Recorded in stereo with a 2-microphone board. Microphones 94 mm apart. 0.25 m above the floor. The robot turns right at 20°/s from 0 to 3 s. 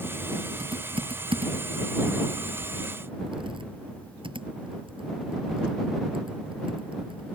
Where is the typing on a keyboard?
65° right (ahead or behind).